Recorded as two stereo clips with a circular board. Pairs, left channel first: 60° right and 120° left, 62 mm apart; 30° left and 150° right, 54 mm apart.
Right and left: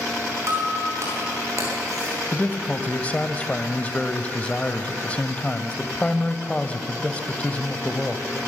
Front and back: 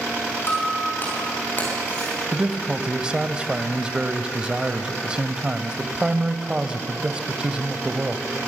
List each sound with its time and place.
0.5 s breaking glass: 80° left, 9 m
2.3 s a man speaking: 95° right, 1.0 m